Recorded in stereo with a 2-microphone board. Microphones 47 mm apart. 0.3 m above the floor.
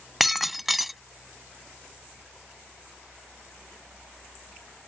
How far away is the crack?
I don't hear a crack.